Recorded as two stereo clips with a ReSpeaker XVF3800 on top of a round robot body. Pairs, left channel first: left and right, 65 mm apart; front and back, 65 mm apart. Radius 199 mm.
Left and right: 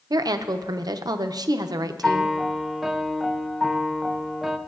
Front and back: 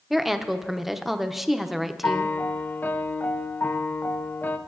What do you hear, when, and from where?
0.1 s a woman speaking: 90° right, 0.7 m
2.0 s a piano: 10° right, 0.8 m